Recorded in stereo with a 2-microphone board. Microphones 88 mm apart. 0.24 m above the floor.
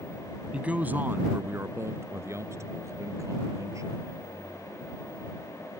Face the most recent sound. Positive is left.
turn(degrees=-35)  # may be behind; listen again after turning